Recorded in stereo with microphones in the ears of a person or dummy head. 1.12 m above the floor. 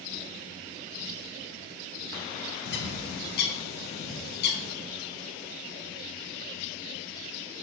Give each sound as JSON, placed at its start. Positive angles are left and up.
{"t": 2.6, "sound": "a bird", "side_deg": 50, "distance_m": 0.9}